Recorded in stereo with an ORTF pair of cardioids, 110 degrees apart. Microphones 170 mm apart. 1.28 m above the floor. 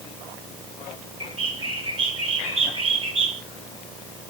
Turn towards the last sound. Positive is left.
turn(degrees=-40)